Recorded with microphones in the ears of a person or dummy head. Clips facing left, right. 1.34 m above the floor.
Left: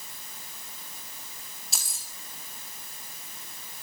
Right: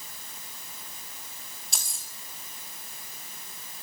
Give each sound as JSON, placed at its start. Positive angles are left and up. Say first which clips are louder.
{"t": 1.7, "sound": "keys jangling", "louder": "even", "side_deg": 0, "distance_m": 2.0}